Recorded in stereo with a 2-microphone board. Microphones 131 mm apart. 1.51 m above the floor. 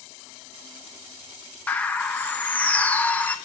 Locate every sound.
1.7 s a bird: 10° left (ahead or behind), 0.6 m